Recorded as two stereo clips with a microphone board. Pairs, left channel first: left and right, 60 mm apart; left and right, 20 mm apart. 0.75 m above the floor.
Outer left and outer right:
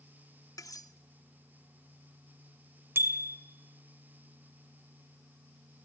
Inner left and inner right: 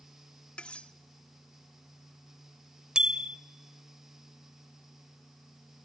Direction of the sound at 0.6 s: 80° left.